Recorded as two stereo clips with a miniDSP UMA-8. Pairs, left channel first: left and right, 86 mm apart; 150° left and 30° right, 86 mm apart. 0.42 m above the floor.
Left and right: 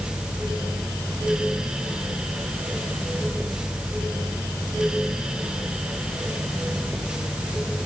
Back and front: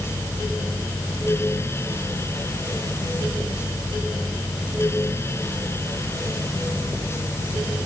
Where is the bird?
No bird in this recording.